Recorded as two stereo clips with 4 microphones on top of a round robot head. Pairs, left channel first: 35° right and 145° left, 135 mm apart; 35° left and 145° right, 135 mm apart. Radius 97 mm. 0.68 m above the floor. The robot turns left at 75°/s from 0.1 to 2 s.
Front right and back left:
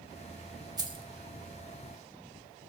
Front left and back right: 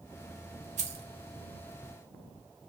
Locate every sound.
0.8 s keys jangling: 155° right, 0.7 m; by 1.1 s 175° right, 0.7 m